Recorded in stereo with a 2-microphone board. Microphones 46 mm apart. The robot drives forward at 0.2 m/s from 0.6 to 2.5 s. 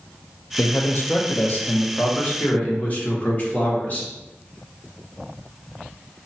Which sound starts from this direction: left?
A man speaking, at 0.6 s.